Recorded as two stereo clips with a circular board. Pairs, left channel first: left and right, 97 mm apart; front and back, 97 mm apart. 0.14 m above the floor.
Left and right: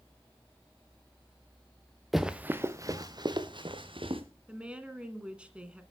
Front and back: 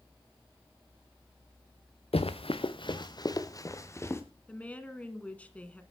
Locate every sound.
2.1 s running footsteps: straight ahead, 1.1 m; by 4.2 s 60° right, 2.5 m
4.5 s a woman speaking: 35° right, 1.4 m